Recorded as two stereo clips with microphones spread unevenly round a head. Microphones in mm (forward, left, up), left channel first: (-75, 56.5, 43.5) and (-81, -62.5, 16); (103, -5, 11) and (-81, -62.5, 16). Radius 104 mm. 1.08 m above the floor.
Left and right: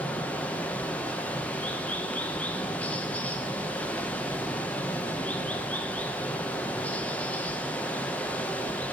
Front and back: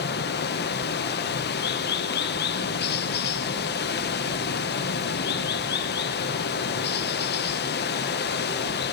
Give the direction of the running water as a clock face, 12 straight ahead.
12 o'clock.